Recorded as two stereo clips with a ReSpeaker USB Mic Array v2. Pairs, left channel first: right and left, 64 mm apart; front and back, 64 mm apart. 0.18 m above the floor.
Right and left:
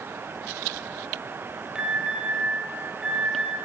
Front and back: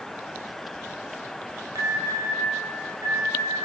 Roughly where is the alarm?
Behind.